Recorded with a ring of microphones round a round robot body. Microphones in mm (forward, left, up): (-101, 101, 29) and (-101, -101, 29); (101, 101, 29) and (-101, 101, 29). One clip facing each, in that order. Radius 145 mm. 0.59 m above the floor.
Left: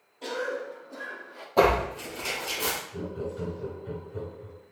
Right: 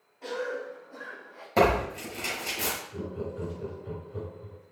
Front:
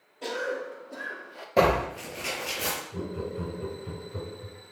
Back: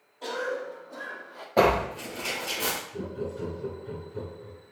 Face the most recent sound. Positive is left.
turn(degrees=-20)